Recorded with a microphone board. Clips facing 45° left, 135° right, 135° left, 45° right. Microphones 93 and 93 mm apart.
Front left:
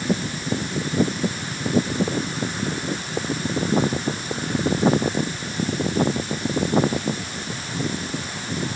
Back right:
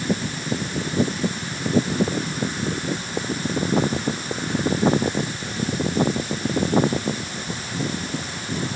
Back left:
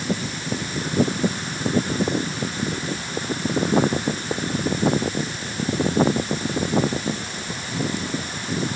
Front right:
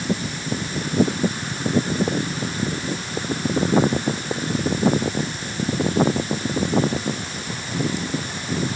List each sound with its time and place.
Only background noise.